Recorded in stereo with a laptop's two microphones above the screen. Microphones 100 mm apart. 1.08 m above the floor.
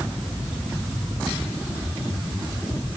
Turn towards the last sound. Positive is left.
No sound to turn to.